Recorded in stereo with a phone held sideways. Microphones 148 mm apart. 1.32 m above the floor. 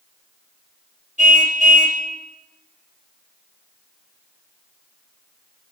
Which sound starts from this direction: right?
A car horn, at 1.2 s.